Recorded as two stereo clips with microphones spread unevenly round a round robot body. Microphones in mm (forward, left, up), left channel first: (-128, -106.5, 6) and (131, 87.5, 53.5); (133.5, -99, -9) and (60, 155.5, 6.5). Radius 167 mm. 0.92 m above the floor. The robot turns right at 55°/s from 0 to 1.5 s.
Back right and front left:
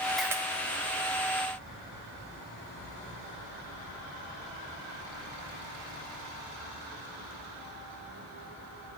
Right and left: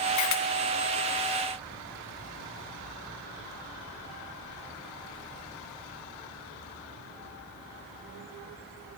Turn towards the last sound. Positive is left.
turn(degrees=20)